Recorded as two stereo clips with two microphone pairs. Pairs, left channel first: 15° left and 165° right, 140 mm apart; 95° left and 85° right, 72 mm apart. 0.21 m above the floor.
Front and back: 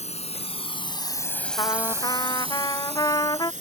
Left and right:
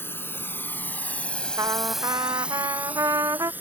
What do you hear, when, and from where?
0.0 s a drone: 45° left; by 3.6 s 145° right
1.6 s a trumpet: 50° right